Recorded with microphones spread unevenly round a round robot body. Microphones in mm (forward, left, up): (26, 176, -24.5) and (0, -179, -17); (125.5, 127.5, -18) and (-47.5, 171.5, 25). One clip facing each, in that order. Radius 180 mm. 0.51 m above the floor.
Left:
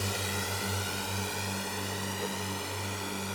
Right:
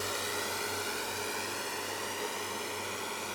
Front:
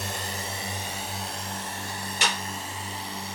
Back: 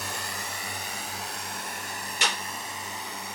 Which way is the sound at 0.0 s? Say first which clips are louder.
Left 1 dB, front 3 dB; 40° left.